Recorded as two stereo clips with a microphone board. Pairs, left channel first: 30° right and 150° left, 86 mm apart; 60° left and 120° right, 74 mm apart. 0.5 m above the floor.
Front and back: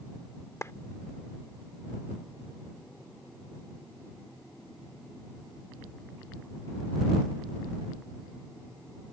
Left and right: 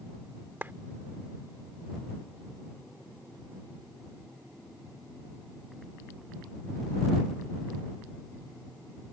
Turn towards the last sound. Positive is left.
turn(degrees=-70)